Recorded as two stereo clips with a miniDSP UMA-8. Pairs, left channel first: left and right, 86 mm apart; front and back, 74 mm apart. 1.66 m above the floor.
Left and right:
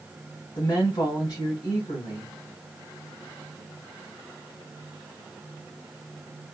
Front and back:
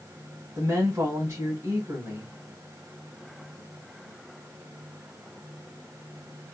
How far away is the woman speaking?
About 1.7 m.